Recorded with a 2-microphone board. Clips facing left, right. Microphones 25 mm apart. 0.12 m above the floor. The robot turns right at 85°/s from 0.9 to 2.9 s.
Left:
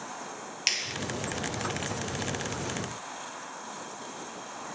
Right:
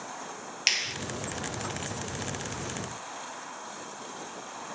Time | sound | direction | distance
0.7 | a finger snap | 15° right (ahead or behind) | 1.9 m